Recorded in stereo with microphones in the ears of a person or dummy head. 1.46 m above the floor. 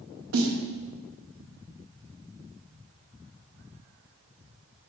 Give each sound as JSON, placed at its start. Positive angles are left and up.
{"t": 0.3, "sound": "a snare drum", "side_deg": -75, "distance_m": 1.1}